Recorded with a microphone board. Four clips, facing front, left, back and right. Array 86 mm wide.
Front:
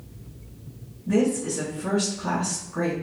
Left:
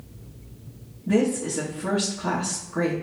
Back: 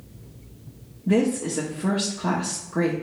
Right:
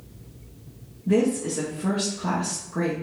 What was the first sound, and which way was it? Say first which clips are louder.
A woman speaking: right 1 dB, back 1 dB; 170° right.